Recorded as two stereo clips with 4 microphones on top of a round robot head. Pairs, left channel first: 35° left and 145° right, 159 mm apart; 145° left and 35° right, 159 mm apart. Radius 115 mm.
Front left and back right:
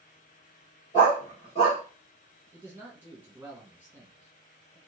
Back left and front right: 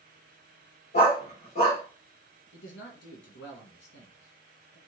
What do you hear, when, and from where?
0.9 s a dog barking: 95° left, 1.9 m
2.5 s a man speaking: 135° left, 1.8 m